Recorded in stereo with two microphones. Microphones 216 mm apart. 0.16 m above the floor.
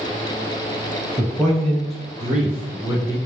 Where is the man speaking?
5° left (ahead or behind), 2 m; by 3.2 s 10° right (ahead or behind), 1.8 m.